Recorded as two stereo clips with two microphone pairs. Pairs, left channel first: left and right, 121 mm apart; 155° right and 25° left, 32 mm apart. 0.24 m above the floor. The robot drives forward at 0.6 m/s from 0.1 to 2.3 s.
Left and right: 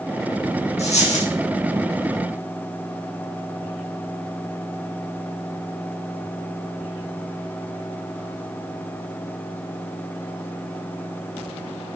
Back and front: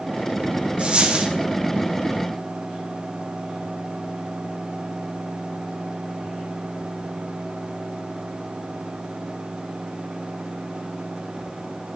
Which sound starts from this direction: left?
A dropped coin, at 0.8 s.